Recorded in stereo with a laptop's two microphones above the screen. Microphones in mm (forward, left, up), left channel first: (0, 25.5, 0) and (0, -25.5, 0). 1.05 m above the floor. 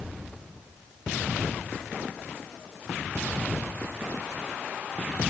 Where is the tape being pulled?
I don't hear tape being pulled.